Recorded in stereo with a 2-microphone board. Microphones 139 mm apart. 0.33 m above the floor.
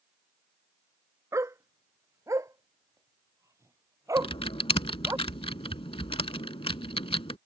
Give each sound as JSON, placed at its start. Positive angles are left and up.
{"t": 1.3, "sound": "a dog barking", "side_deg": -20}
{"t": 4.2, "sound": "typing on a keyboard", "side_deg": 40}